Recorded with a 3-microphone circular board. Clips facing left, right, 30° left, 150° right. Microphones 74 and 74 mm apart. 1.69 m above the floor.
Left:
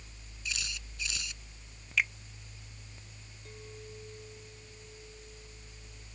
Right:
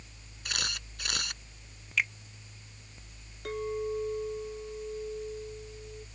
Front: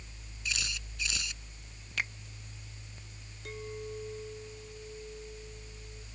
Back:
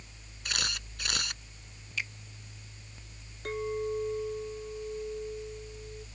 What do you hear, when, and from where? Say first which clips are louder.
0.5 s a camera shutter: right 4 dB, back 2 dB; 120° right
2.0 s a finger snap: even, front 2 dB; straight ahead
3.5 s a clink: right 16 dB, back 9 dB; 110° right